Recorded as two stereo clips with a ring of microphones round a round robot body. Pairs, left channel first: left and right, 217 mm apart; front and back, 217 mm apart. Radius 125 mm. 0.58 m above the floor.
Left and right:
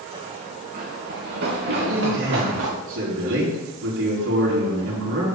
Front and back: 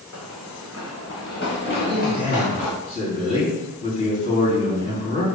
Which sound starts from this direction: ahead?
Running footsteps, at 0.1 s.